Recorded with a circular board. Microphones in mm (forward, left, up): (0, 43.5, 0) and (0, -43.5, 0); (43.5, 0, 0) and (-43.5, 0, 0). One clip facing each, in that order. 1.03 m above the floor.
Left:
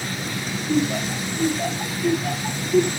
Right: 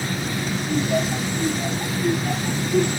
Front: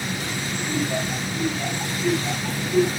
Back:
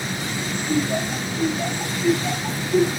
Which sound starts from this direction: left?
Laughter, at 0.7 s.